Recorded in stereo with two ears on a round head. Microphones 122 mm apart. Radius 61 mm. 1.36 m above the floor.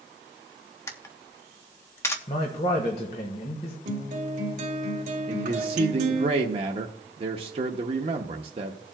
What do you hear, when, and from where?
0.9 s a camera shutter: 20° left (ahead or behind), 0.9 m
2.3 s a man speaking: 50° left (ahead or behind), 1.5 m
3.9 s a guitar: 60° right (ahead or behind), 1.6 m
5.3 s a man speaking: 40° right (ahead or behind), 0.6 m